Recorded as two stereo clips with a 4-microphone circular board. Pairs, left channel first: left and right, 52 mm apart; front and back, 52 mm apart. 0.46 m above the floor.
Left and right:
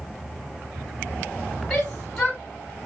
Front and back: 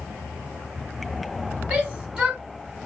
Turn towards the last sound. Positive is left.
turn(degrees=145)